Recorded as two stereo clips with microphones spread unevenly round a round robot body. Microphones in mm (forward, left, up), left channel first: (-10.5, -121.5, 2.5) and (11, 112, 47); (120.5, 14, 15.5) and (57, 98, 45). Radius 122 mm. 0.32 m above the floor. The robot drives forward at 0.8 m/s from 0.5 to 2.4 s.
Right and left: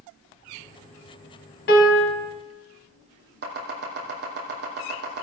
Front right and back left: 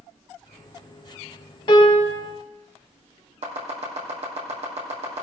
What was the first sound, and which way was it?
A piano, 65° right.